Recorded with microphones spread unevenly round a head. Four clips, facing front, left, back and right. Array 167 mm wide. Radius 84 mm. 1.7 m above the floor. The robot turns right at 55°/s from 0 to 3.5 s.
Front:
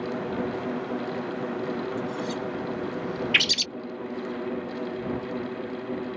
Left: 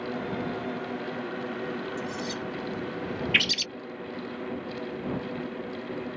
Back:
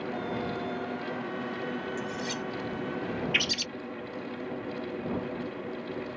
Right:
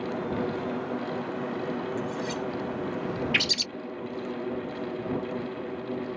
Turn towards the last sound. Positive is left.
turn(degrees=20)